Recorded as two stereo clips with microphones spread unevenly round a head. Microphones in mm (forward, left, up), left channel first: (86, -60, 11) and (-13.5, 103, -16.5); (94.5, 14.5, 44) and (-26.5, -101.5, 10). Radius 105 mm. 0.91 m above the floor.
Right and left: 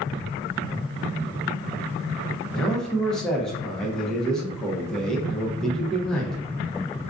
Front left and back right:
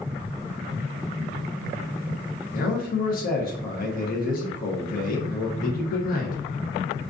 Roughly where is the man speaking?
Ahead left.